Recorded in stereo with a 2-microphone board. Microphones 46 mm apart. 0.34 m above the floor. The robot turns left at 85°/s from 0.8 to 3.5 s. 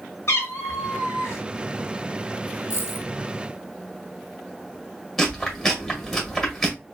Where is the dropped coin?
110° left, 0.9 m; by 3.1 s 75° left, 0.9 m.